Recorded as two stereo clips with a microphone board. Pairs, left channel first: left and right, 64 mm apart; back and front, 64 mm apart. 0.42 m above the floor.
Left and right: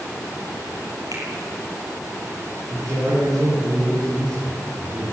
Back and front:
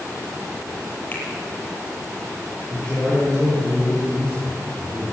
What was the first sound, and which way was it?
A finger snap, 120° right.